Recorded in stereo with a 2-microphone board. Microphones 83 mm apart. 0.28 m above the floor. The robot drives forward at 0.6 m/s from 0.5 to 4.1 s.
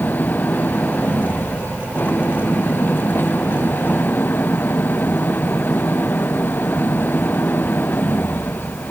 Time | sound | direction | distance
0.0 | an engine running | 20° left (ahead or behind) | ?